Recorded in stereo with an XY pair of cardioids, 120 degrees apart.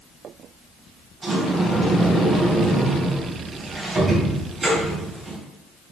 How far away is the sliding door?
About 3 m.